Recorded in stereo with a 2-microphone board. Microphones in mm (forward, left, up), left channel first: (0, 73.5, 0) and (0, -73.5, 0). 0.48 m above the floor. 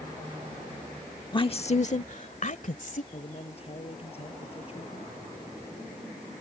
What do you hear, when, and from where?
1.3 s a woman speaking: 30° left (ahead or behind); by 3.0 s 60° left (ahead or behind)
3.1 s a man speaking: 40° left (ahead or behind)